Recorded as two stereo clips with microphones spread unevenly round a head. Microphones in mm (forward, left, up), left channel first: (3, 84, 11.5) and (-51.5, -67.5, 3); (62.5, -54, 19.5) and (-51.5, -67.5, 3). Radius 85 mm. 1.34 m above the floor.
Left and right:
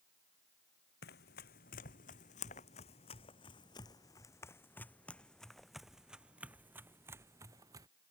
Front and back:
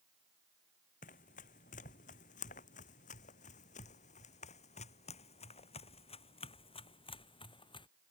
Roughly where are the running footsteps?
Ahead left.